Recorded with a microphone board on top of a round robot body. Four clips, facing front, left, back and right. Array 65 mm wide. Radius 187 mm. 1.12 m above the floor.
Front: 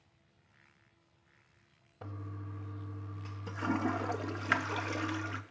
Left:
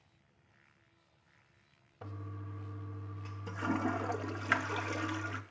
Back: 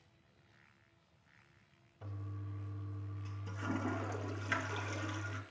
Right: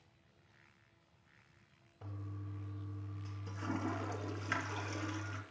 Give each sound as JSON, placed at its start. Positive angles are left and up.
{"t": 2.0, "sound": "a toilet flushing", "azimuth_deg": 40, "distance_m": 1.1}